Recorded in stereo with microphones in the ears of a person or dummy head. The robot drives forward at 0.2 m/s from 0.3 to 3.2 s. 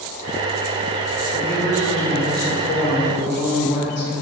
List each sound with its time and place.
1.3 s a man speaking: 65° left (ahead or behind), 1.5 m; by 4.1 s 55° left (ahead or behind), 1.7 m